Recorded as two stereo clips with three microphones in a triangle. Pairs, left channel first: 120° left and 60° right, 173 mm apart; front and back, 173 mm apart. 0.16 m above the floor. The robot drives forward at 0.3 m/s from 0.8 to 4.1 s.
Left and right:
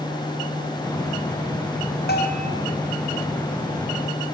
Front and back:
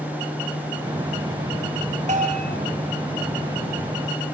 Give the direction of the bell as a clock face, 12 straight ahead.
7 o'clock.